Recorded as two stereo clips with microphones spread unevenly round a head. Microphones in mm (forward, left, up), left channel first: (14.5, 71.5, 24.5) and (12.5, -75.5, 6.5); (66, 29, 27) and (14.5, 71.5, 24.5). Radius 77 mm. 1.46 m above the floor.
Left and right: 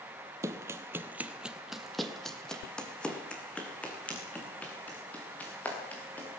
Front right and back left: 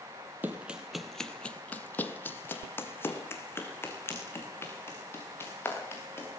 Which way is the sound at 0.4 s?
160° right.